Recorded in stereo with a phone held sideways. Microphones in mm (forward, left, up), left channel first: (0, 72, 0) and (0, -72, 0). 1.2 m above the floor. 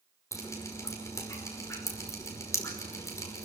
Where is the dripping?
20° left (ahead or behind), 5 m.